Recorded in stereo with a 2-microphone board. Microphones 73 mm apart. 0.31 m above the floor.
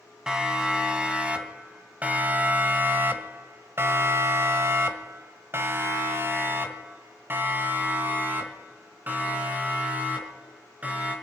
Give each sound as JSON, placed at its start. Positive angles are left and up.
{"t": 0.3, "sound": "a siren", "side_deg": -10, "distance_m": 3.0}